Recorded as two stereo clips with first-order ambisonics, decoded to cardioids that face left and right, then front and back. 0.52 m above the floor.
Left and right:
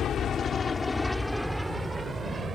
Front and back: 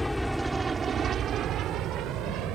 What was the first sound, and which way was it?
An aircraft, 80° left.